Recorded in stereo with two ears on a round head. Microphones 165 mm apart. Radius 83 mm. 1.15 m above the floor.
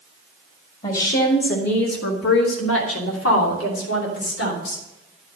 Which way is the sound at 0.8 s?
45° left (ahead or behind).